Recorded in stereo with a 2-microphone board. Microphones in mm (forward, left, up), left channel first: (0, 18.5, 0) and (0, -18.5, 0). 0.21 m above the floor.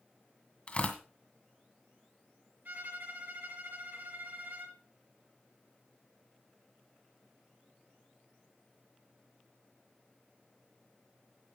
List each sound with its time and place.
0.7 s tearing paper: 35° left (ahead or behind), 1.9 m
2.6 s a violin: 60° right (ahead or behind), 3.5 m